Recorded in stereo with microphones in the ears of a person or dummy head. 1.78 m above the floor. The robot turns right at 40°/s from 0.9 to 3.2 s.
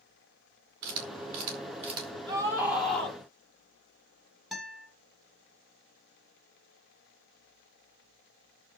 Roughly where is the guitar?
Centre.